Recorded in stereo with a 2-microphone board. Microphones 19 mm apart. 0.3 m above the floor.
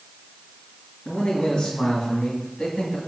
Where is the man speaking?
65° left (ahead or behind), 3 m; by 3.0 s 55° left (ahead or behind), 2 m.